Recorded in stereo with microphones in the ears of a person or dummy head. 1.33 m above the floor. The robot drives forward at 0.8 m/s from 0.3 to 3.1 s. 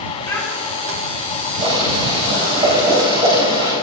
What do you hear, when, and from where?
0.3 s a child speaking: 15° left (ahead or behind), 6 m
1.6 s boiling: 30° right (ahead or behind), 5.5 m; by 3.7 s 25° right (ahead or behind), 6.5 m